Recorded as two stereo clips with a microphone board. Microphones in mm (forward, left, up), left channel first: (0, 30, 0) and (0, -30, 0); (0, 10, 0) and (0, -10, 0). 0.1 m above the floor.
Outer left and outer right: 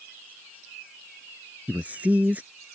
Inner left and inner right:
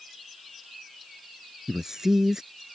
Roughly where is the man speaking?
Right.